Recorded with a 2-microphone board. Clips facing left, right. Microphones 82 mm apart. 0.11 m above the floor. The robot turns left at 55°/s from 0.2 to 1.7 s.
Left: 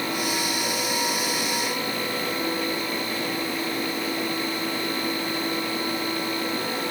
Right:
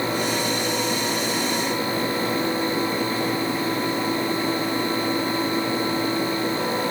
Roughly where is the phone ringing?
No phone ringing in this recording.